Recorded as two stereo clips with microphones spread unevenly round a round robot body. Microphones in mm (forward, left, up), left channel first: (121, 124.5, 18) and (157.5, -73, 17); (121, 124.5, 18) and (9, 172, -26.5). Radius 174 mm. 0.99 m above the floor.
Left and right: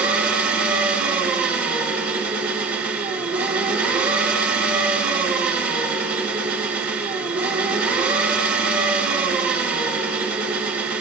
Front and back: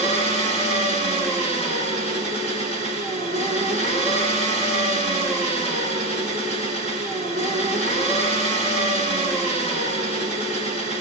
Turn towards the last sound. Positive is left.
turn(degrees=-140)